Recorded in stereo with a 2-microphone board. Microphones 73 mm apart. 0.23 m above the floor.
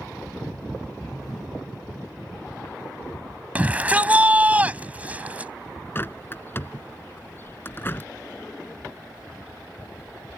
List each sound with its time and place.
3.5 s a shout: 20° right (ahead or behind)
6.0 s a bird: 30° left (ahead or behind)